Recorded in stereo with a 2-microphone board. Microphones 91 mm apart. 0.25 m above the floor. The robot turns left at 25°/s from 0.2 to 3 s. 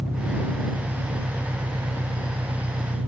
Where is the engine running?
10° right; by 3.1 s 80° right.